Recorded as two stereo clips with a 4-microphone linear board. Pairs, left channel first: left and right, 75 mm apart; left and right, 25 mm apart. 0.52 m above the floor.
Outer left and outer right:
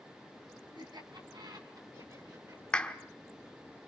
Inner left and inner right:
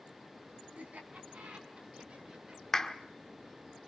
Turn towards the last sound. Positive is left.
turn(degrees=15)  # may be behind; listen again after turning